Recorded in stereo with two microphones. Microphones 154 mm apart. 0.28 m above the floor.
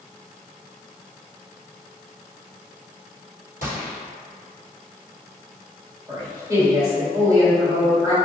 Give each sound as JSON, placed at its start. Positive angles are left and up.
{"t": 3.6, "sound": "a gunshot", "side_deg": -70, "distance_m": 1.5}
{"t": 6.1, "sound": "a woman speaking", "side_deg": -20, "distance_m": 1.6}